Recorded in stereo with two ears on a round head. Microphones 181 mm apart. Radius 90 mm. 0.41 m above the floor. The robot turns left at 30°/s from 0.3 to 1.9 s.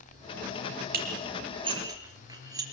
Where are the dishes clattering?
45° right (ahead or behind), 4.5 m; by 2.6 s 20° right (ahead or behind), 4.5 m.